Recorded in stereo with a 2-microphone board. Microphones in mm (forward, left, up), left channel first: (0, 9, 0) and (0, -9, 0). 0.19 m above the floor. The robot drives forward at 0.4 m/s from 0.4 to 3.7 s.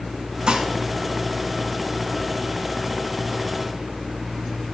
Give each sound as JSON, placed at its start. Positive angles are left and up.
{"t": 0.5, "sound": "dishes clattering", "side_deg": -45, "distance_m": 1.4}